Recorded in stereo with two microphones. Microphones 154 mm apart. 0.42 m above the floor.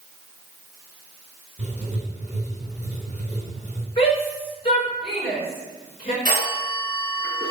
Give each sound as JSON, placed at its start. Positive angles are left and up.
{"t": 1.6, "sound": "writing", "side_deg": -50, "distance_m": 3.5}
{"t": 4.0, "sound": "a shout", "side_deg": 40, "distance_m": 4.5}
{"t": 6.2, "sound": "a phone ringing", "side_deg": -75, "distance_m": 3.0}